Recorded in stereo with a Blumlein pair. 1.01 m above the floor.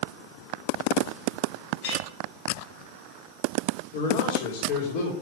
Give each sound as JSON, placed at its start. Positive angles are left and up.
{"t": 1.8, "sound": "a clink", "azimuth_deg": 45, "distance_m": 4.0}
{"t": 3.9, "sound": "a man speaking", "azimuth_deg": 50, "distance_m": 3.0}